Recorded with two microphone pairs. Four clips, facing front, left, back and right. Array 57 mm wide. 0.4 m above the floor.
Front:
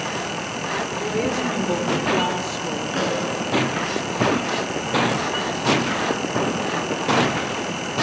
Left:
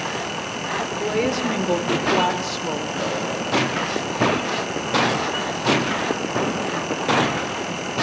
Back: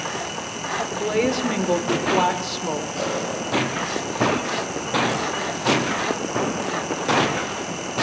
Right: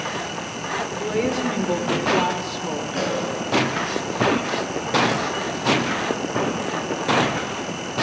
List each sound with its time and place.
0.9 s a woman speaking: 155° left, 1.3 m
2.9 s a pop: 5° right, 6.5 m